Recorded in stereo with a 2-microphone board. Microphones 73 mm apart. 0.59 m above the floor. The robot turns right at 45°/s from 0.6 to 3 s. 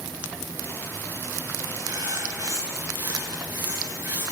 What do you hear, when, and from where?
1.8 s writing: 80° right, 9.5 m; by 4.3 s 30° right, 9.5 m